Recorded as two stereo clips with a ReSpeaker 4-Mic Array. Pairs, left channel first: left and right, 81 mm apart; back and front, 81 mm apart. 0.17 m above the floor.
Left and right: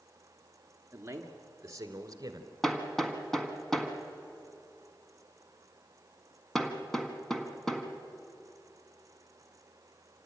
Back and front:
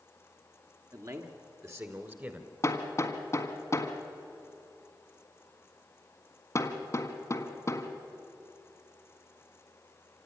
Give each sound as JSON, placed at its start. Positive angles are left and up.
{"t": 0.9, "sound": "a man speaking", "azimuth_deg": -35, "distance_m": 2.5}
{"t": 2.6, "sound": "hammering", "azimuth_deg": 175, "distance_m": 1.6}